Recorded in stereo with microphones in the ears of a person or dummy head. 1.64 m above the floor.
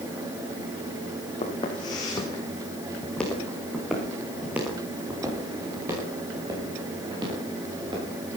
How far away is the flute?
No flute in this recording.